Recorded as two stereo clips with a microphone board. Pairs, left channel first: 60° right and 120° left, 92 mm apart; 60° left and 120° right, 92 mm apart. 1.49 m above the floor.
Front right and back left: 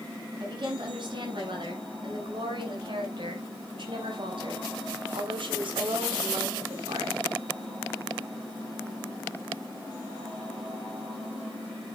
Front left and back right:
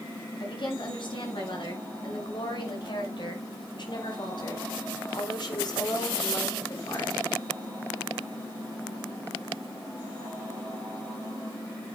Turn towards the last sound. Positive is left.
turn(degrees=105)